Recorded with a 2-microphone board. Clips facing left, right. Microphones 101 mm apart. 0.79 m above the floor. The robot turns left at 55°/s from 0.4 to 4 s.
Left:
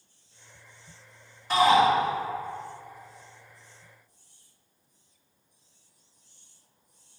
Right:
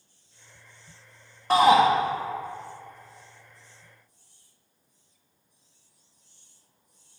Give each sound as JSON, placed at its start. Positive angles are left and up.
{"t": 1.5, "sound": "a shout", "side_deg": -50, "distance_m": 0.9}